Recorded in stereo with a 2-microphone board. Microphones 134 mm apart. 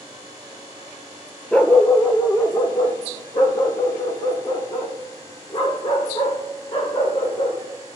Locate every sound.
1.5 s a dog barking: 5° left (ahead or behind), 0.6 m; by 7.6 s 50° left (ahead or behind), 5 m